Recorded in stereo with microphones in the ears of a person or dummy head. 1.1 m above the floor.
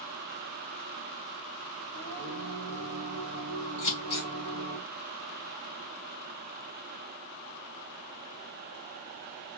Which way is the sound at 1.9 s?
85° right.